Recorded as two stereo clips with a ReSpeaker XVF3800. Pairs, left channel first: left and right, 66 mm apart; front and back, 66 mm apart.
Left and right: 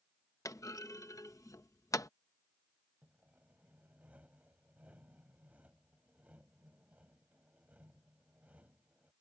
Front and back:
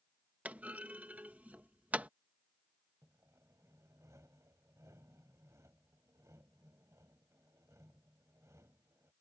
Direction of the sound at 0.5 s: 115° left.